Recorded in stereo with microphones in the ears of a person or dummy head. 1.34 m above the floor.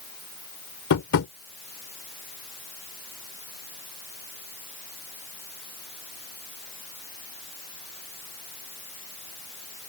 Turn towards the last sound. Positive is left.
turn(degrees=80)